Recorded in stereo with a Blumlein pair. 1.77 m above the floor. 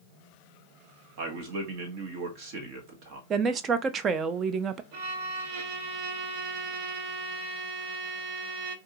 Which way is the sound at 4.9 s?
50° right.